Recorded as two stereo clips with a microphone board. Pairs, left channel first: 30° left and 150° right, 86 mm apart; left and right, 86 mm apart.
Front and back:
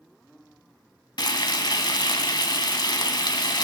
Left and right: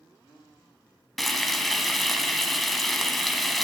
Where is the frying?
Straight ahead, 1.5 m.